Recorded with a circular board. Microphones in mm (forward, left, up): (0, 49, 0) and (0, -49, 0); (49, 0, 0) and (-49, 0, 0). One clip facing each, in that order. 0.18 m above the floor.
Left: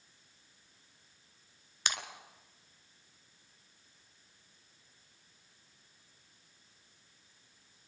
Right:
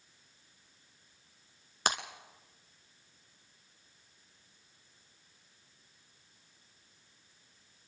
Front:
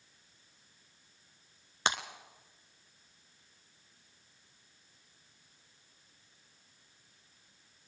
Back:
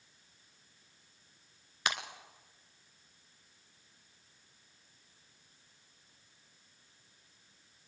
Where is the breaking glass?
55° right, 1.3 m.